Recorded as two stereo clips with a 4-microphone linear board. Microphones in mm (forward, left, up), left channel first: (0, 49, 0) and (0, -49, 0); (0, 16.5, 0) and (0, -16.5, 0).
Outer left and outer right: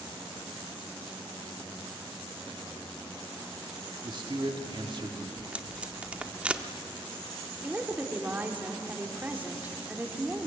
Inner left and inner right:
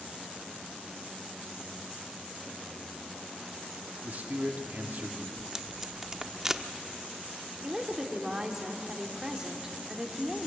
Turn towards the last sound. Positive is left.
turn(degrees=-20)  # may be behind; listen again after turning